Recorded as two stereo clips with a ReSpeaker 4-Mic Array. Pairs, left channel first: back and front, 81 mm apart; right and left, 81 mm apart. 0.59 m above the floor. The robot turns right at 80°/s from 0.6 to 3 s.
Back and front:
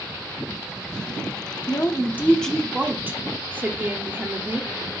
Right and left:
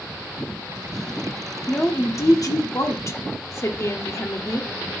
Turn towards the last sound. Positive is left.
turn(degrees=-55)